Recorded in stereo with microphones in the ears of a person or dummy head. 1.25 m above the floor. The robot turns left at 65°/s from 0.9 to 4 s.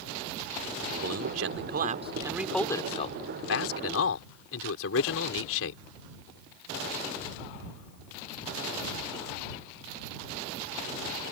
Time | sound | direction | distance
1.0 | a man speaking | 90° right | ?